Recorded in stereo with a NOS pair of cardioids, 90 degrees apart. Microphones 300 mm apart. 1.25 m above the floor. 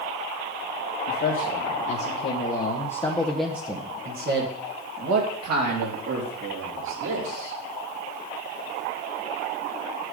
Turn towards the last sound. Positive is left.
turn(degrees=-75)